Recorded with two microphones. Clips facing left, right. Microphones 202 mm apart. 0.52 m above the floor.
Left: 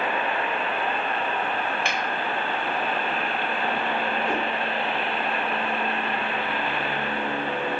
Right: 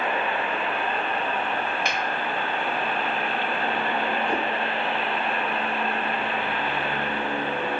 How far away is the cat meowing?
About 0.8 m.